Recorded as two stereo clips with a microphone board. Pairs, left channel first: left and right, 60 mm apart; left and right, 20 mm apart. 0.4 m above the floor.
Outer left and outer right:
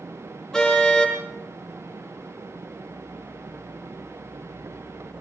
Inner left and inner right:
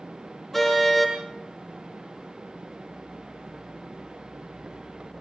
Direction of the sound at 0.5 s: 10° left (ahead or behind).